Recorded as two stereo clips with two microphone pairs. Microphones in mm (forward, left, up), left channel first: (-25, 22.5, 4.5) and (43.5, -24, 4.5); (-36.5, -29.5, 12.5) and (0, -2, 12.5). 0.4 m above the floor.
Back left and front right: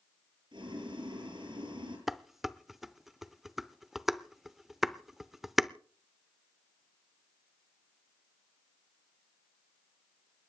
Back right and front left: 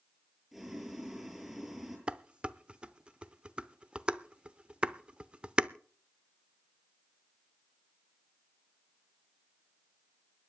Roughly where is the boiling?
Ahead right.